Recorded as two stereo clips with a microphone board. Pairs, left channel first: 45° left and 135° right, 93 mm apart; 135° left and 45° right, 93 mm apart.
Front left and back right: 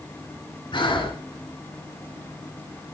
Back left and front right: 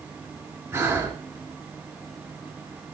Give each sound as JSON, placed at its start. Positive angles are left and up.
{"t": 0.7, "sound": "breathing", "azimuth_deg": 15, "distance_m": 1.7}